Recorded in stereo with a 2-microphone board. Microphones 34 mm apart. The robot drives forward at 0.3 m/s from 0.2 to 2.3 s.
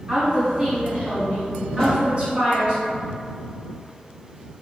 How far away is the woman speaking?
About 1.3 m.